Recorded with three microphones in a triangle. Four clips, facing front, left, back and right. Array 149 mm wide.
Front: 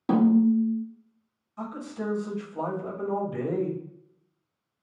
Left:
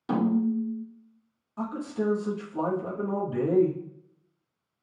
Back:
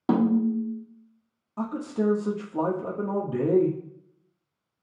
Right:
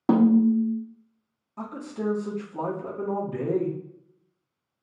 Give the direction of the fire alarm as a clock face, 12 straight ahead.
I don't hear a fire alarm.